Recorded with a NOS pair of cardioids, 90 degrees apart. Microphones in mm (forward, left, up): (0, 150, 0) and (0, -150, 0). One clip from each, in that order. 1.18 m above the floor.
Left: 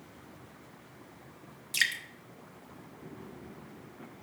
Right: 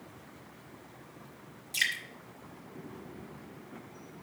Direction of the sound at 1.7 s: 35° left.